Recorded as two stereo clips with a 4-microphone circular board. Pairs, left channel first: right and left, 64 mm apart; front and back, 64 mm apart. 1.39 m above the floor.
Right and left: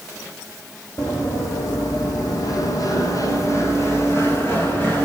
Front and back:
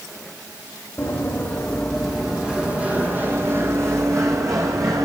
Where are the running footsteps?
60° right, 3.5 m; by 5.0 s 150° right, 5 m.